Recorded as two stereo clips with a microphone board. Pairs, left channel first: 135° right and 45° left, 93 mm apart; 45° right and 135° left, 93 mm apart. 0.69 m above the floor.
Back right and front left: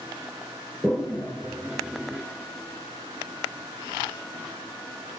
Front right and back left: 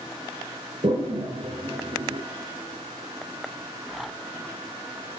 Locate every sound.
0.8 s a toilet flushing: 130° left, 4 m